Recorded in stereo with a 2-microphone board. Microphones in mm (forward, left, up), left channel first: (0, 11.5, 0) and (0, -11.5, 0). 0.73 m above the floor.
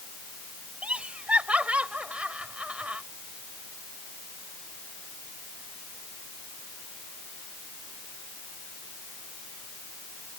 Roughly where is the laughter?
Right.